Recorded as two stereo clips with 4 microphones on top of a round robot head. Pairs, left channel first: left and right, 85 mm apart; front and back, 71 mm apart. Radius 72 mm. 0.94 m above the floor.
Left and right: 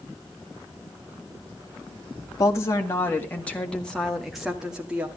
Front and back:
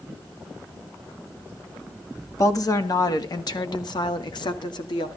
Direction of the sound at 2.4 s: 35° left.